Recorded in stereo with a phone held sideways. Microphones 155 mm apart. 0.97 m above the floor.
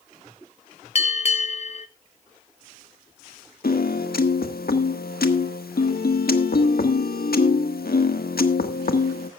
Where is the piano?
85° left, 1.4 m.